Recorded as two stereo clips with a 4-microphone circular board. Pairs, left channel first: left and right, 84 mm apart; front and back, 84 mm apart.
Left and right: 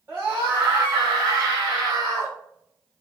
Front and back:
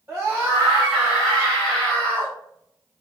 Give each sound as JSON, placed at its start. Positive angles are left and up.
{"t": 0.1, "sound": "a scream", "azimuth_deg": -140, "distance_m": 1.5}